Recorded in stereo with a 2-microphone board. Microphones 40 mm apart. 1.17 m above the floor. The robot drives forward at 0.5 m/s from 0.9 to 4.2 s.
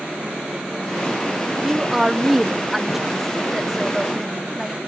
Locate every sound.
1.6 s a woman speaking: 10° right (ahead or behind); by 4.8 s 5° right (ahead or behind)